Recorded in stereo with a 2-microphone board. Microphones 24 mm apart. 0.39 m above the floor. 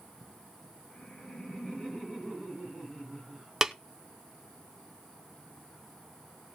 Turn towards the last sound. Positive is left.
turn(degrees=-15)  # may be behind; listen again after turning